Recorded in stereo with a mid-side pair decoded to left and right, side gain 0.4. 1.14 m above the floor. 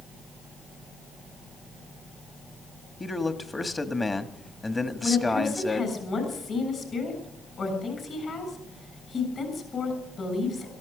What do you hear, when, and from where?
3.0 s a man speaking: 25° left, 1.6 m
5.0 s a woman speaking: 50° left, 7 m